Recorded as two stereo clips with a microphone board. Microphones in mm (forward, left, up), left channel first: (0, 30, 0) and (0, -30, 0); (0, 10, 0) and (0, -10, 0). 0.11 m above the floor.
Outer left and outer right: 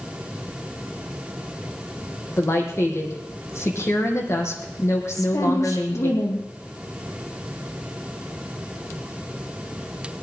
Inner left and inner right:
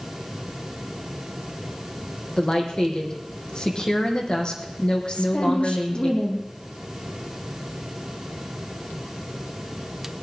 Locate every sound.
2.4 s a woman speaking: 50° left (ahead or behind), 4 m
5.1 s a woman speaking: 75° left (ahead or behind), 5 m